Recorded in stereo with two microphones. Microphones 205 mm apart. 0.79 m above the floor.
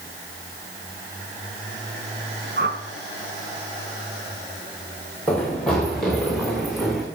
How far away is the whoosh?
About 2.0 m.